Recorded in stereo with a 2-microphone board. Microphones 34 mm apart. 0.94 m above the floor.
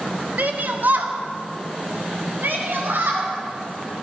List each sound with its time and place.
0.4 s a shout: 55° right (ahead or behind), 1.3 m; by 3.3 s 85° right, 4.5 m